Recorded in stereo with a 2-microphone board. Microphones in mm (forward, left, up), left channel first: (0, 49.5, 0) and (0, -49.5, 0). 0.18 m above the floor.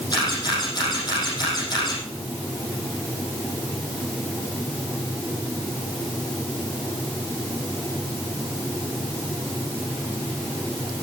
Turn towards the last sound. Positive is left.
turn(degrees=45)  # may be behind; listen again after turning